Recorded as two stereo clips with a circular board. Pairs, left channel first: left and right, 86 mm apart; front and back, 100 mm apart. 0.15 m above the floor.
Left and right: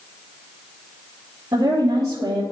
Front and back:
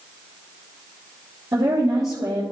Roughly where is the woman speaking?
Behind right.